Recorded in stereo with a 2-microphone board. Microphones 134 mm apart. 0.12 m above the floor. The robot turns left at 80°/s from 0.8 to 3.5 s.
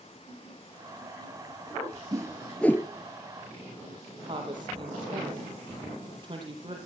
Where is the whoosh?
25° right (ahead or behind), 1.1 m; by 2.9 s 25° left (ahead or behind), 1.1 m.